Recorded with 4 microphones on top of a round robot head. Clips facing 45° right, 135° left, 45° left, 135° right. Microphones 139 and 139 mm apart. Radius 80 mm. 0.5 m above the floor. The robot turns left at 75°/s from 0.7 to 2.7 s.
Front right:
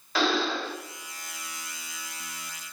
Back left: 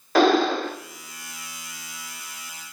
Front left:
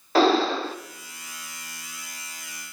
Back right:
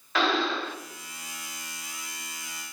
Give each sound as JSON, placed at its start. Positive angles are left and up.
{"t": 0.1, "sound": "breathing", "azimuth_deg": 100, "distance_m": 0.6}